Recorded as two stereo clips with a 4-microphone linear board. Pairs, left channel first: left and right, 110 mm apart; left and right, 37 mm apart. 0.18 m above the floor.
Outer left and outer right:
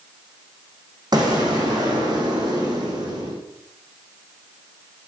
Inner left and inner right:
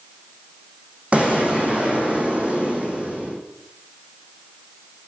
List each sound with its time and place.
1.1 s an explosion: 40° right (ahead or behind), 3.5 m